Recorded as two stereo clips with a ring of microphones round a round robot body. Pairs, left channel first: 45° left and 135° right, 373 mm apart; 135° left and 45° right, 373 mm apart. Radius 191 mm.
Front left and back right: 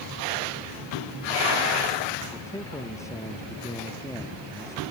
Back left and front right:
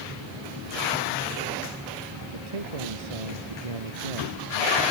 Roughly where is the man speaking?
Ahead right.